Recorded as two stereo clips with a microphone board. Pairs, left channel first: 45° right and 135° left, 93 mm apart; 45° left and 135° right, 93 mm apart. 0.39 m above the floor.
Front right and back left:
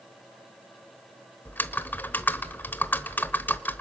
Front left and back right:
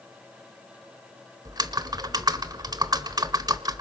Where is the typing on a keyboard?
110° right, 0.9 m.